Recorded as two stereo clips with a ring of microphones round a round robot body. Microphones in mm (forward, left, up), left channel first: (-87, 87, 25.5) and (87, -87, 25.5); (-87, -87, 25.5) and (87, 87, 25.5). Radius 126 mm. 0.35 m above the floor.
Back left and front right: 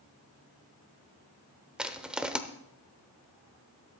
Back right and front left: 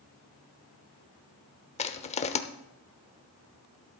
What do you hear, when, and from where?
1.8 s crushing: 125° right, 0.8 m